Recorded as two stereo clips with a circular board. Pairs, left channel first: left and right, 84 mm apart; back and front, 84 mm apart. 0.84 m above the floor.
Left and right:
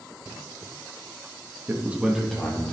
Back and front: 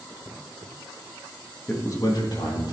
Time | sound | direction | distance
1.7 | a man speaking | 130° right | 1.0 m